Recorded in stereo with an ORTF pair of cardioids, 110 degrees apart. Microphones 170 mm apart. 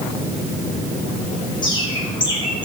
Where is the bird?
25° left, 5 m.